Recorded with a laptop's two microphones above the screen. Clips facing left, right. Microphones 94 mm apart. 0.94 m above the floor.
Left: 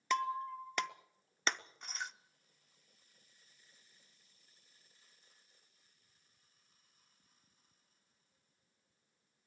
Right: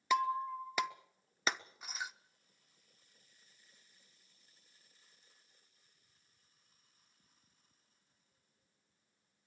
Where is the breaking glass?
5° right (ahead or behind), 0.6 m.